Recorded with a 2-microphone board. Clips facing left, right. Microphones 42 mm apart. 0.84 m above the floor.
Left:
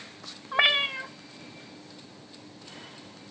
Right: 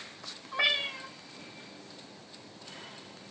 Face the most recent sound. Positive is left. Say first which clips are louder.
# left 6 dB
turn(degrees=50)  # may be behind; listen again after turning